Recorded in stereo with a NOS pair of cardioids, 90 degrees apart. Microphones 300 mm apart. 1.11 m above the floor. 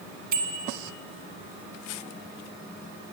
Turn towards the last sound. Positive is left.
turn(degrees=-70)